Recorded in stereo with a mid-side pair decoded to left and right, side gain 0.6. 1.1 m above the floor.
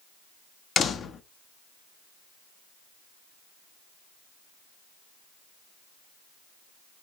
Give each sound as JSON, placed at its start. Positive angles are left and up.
{"t": 0.8, "sound": "a door slam", "azimuth_deg": 40, "distance_m": 0.9}